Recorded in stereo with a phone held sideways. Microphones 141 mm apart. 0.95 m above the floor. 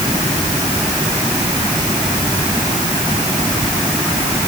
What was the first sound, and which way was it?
Only background noise.